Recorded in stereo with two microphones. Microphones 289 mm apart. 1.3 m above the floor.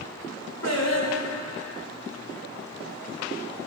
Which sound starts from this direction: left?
Singing, at 0.6 s.